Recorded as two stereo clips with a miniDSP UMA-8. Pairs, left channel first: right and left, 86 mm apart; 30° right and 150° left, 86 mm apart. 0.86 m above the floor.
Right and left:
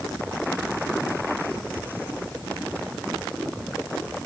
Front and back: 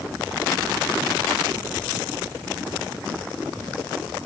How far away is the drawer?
I don't hear a drawer.